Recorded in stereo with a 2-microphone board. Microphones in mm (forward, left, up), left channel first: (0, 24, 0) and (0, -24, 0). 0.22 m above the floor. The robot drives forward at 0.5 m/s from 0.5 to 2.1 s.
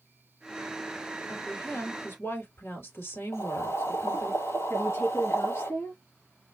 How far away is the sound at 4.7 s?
About 3.5 m.